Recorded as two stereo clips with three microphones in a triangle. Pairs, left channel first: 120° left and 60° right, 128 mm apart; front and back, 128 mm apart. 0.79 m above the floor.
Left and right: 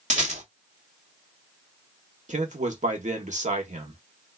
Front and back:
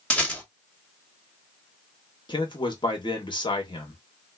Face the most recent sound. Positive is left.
turn(degrees=-50)